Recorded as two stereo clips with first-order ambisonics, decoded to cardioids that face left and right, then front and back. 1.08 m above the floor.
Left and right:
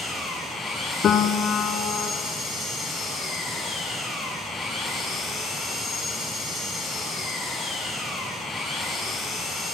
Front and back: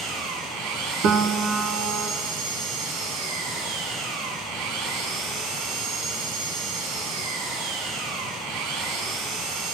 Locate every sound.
0.0 s an engine running: 170° left, 5.5 m
1.0 s a piano: 145° left, 1.5 m